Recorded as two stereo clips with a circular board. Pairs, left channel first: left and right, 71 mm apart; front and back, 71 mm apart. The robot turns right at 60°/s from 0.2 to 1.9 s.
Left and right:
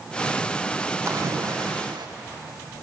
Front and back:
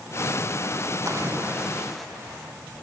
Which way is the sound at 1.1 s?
140° right.